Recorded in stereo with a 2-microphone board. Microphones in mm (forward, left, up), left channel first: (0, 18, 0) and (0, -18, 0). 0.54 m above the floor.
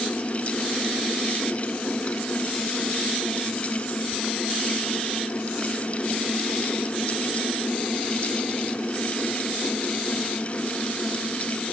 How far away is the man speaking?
I don't hear a man speaking.